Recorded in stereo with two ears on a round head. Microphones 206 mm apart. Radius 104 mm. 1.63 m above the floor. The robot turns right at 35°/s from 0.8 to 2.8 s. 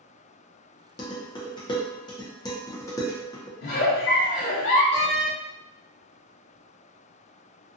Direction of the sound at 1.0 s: 20° left (ahead or behind).